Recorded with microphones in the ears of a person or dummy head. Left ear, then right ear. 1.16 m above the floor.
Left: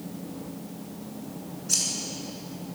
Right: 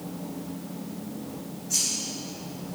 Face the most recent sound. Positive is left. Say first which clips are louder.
# left 1 dB
turn(degrees=75)  # may be behind; listen again after turning